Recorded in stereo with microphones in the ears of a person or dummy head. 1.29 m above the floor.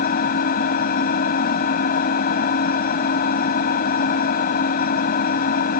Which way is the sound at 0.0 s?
55° left (ahead or behind).